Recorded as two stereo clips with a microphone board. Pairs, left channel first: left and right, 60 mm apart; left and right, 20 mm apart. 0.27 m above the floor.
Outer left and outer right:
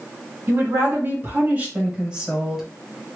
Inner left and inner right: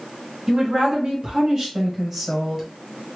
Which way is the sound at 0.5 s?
45° right (ahead or behind).